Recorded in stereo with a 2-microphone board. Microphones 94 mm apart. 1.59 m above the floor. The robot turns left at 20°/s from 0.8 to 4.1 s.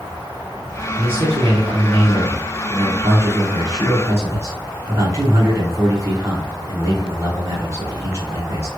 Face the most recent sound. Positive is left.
turn(degrees=-145)